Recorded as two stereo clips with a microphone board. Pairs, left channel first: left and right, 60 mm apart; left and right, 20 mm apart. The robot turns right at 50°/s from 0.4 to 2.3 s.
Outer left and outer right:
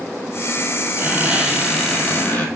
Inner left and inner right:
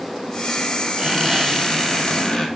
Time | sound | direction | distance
1.0 | a squeak | 35° right | 3 m